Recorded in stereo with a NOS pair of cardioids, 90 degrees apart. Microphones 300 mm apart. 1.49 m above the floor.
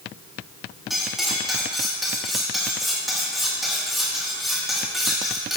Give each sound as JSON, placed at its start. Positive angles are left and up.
{"t": 0.9, "sound": "cutlery clinking", "azimuth_deg": 0, "distance_m": 2.0}